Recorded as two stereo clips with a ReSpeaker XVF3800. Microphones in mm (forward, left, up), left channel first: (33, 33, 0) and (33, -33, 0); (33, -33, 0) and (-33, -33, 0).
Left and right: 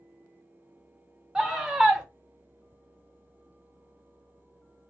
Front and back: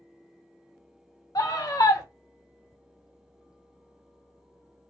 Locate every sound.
1.4 s a scream: 10° right, 1.0 m